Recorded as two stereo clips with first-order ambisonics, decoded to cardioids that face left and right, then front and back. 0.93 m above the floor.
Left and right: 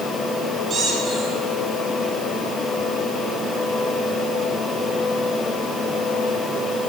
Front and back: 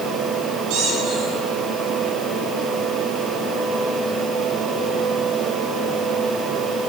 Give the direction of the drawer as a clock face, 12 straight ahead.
No drawer in this recording.